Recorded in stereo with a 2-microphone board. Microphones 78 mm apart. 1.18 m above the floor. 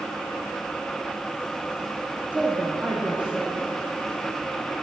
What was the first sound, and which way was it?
A woman speaking, 20° right (ahead or behind).